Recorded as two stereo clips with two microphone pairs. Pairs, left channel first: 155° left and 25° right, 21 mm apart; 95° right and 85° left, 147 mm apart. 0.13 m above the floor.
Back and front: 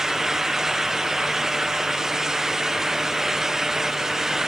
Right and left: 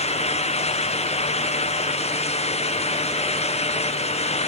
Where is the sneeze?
I don't hear a sneeze.